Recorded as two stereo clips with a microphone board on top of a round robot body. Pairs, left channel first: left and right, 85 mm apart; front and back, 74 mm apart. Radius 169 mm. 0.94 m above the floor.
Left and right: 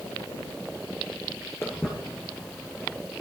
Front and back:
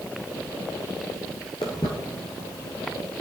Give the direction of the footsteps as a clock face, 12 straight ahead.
11 o'clock.